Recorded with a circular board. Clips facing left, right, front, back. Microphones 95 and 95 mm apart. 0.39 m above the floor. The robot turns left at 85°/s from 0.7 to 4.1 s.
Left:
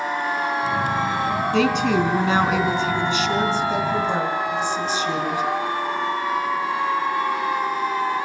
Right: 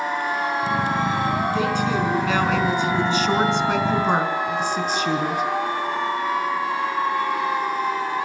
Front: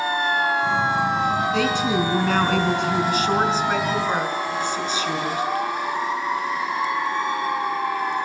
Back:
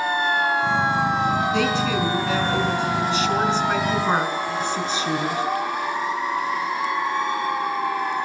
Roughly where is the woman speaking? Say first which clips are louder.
Left 3 dB, front 1 dB; left.